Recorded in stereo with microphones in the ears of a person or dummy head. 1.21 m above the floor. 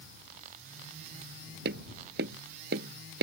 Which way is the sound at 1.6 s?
55° right (ahead or behind).